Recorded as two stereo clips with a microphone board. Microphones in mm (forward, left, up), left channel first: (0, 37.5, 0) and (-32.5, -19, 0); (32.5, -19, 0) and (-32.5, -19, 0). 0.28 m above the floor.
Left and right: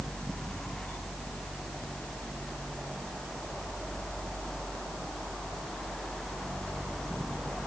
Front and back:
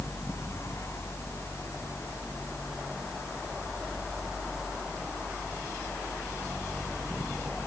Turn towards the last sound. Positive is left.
No sound to turn to.